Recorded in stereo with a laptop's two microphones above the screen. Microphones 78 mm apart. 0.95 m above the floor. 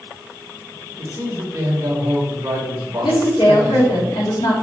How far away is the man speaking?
About 3 m.